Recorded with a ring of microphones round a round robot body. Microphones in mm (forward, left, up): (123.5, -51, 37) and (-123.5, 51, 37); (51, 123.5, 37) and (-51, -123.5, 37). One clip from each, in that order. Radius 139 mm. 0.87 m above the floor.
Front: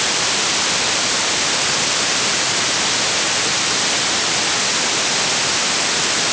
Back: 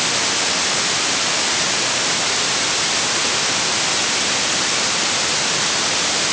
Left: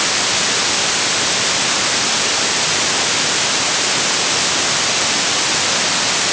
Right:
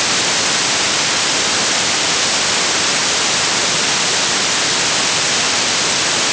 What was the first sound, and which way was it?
Only background noise.